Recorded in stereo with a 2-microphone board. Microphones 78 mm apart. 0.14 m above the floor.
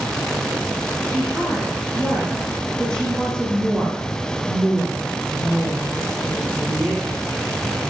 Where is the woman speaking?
10° left (ahead or behind), 5.5 m.